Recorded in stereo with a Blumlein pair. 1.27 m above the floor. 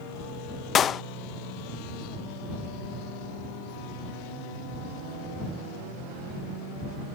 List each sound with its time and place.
0.8 s a clap: 25° left